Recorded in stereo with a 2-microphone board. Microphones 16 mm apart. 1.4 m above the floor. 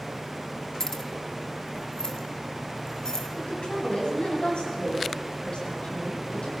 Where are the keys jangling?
30° left (ahead or behind), 1.7 m; by 3.2 s 35° left (ahead or behind), 4.5 m.